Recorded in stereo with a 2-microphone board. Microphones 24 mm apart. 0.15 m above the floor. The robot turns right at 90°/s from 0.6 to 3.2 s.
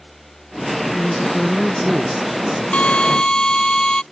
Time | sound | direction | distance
0.9 | a woman speaking | 85° left | ?
2.7 | a drill | 100° left | ?